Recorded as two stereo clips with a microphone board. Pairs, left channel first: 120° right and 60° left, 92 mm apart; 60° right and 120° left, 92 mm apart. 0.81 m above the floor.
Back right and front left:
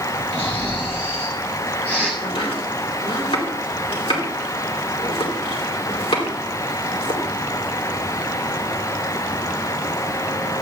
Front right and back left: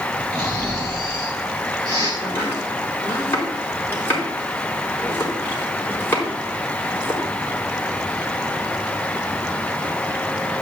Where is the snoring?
165° left, 4.5 m.